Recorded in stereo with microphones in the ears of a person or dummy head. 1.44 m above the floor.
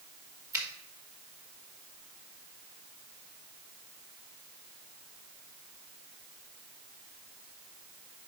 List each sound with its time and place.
0.5 s a finger snap: 20° right (ahead or behind), 3 m